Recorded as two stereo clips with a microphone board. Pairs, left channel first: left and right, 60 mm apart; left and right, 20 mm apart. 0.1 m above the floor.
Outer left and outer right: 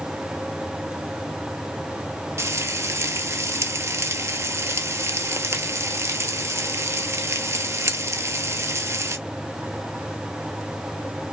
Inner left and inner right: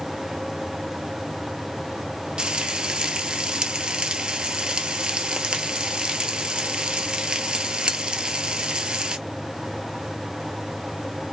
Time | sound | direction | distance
2.4 | frying | 50° right (ahead or behind) | 0.7 m